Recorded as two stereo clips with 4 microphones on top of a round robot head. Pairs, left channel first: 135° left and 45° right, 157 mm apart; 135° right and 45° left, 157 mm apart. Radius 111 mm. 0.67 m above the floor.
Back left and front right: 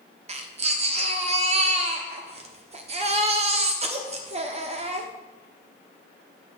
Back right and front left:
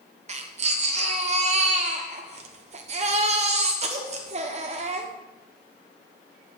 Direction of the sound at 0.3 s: Straight ahead.